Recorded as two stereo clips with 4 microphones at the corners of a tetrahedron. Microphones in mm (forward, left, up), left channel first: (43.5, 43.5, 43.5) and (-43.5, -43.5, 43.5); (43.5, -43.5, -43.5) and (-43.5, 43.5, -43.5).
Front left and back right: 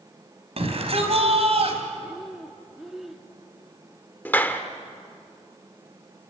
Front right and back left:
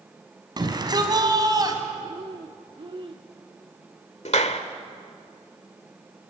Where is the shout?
170° right, 4 m.